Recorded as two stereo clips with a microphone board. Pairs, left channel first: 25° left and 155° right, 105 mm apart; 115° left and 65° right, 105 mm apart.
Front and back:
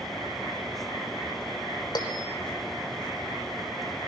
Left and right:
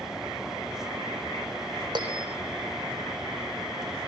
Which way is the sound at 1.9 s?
25° right.